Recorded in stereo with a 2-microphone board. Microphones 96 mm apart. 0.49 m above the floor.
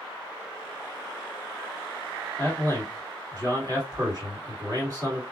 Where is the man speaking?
40° right (ahead or behind), 1.8 m.